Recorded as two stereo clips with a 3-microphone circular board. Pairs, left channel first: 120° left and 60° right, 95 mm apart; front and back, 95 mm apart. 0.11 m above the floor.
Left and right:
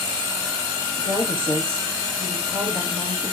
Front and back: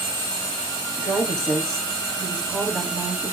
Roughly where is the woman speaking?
Right.